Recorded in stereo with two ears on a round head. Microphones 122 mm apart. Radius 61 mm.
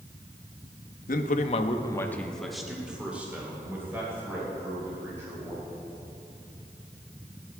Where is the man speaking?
70° left (ahead or behind), 1.1 m; by 5.7 s 25° right (ahead or behind), 5.5 m.